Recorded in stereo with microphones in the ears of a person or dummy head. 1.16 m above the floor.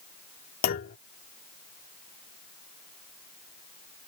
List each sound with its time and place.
0.6 s a clunk: 50° left (ahead or behind)